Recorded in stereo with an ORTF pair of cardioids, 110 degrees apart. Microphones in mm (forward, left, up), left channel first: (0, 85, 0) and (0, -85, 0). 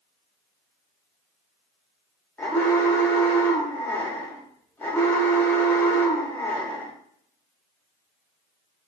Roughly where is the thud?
I don't hear a thud.